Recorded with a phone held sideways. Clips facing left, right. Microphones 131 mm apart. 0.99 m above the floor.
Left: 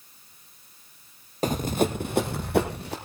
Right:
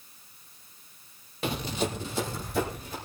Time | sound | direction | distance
1.4 | running footsteps | 40° left (ahead or behind) | 1.4 m